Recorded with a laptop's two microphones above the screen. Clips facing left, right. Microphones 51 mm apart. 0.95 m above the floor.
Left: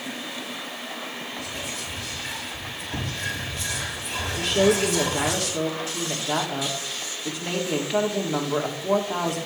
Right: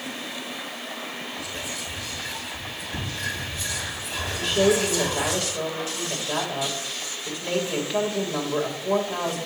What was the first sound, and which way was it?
Whispering, 80° left.